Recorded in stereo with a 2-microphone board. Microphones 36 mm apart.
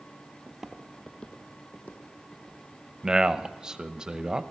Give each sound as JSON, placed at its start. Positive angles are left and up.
{"t": 0.5, "sound": "footsteps", "side_deg": -15, "distance_m": 1.1}
{"t": 3.0, "sound": "a man speaking", "side_deg": -15, "distance_m": 0.8}